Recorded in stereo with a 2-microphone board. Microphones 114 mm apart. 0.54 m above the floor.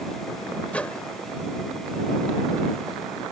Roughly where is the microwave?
Centre.